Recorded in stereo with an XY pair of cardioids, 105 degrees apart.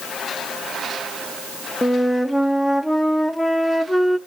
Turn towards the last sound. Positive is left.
turn(degrees=10)